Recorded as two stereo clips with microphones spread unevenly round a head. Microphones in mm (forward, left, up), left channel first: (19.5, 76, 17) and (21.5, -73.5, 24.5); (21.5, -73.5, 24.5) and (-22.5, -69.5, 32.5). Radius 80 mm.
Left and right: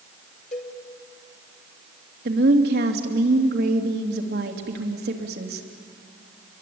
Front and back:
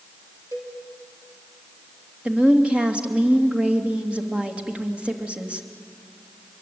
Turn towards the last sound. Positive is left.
turn(degrees=-120)